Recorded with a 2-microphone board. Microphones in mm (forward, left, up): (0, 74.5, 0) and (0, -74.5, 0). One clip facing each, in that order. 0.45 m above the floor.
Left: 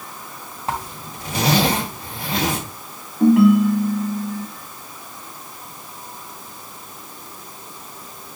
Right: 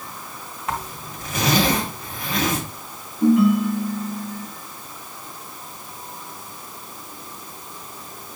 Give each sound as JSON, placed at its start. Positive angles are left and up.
{"t": 0.7, "sound": "a zipper", "side_deg": 35, "distance_m": 3.0}
{"t": 3.2, "sound": "a ringtone", "side_deg": 80, "distance_m": 1.8}